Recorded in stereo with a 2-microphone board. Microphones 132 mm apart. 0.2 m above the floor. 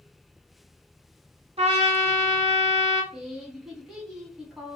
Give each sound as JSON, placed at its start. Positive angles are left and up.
{"t": 1.6, "sound": "a trumpet", "side_deg": -50, "distance_m": 0.6}
{"t": 3.1, "sound": "a woman speaking", "side_deg": -5, "distance_m": 1.2}